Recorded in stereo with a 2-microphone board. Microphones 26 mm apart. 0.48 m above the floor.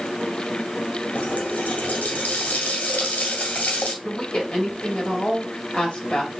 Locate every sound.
1.1 s a running tap: 75° left (ahead or behind), 1.7 m
4.0 s a woman speaking: 40° left (ahead or behind), 2.5 m